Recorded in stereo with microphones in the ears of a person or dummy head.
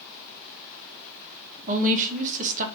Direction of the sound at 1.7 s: 40° right (ahead or behind).